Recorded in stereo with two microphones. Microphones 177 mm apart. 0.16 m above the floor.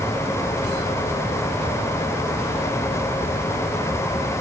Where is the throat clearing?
I don't hear throat clearing.